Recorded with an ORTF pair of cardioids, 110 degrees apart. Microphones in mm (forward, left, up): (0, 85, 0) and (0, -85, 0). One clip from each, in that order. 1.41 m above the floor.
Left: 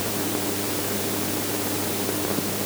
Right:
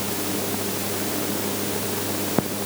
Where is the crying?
I don't hear crying.